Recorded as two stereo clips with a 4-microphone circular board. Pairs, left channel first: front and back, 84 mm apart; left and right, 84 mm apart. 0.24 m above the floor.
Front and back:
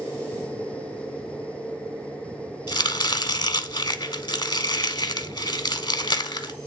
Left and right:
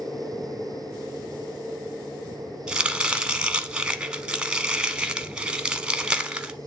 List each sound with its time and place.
2.7 s chopping: 15° right, 0.8 m